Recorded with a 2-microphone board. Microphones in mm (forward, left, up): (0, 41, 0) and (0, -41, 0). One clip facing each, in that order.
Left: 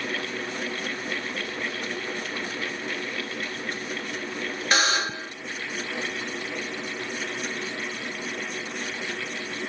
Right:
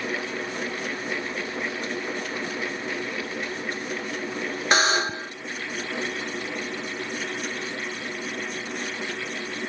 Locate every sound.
4.7 s a buzzer: 30° right (ahead or behind), 0.6 m